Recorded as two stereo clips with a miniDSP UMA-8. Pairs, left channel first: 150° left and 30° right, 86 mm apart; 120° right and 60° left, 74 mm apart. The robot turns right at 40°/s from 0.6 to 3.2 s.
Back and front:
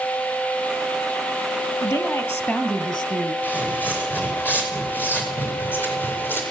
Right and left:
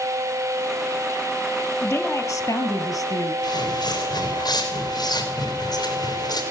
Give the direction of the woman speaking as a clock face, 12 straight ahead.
6 o'clock.